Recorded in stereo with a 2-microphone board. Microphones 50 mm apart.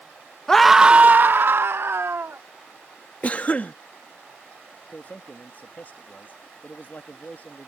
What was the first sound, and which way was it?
A scream, 15° left (ahead or behind).